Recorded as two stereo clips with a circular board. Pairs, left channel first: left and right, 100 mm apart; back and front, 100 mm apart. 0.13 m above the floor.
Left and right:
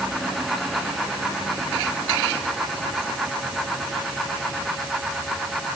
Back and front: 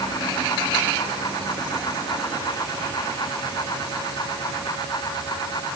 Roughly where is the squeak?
I don't hear a squeak.